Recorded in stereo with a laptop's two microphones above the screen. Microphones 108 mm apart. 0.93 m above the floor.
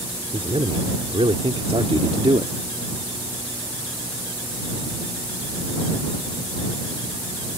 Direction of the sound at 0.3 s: 60° right (ahead or behind).